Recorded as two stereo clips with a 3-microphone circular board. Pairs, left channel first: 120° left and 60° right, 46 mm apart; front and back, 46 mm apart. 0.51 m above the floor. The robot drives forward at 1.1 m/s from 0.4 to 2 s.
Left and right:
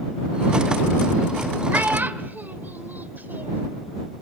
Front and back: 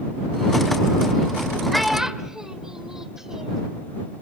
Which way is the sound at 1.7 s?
85° right.